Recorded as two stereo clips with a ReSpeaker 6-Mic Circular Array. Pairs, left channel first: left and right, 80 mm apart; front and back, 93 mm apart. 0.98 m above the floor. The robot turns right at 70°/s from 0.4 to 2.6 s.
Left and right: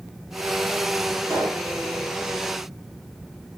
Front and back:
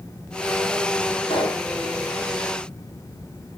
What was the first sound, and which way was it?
A pop, 35° right.